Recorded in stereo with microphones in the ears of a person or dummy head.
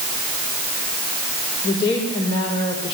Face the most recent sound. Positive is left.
turn(degrees=35)  # may be behind; listen again after turning